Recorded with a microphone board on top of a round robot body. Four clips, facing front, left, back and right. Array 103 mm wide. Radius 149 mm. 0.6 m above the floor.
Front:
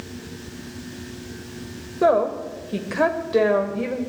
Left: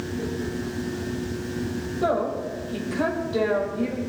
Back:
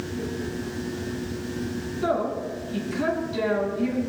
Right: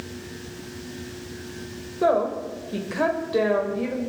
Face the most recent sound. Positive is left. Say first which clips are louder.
# right 3 dB, front 7 dB
turn(degrees=-15)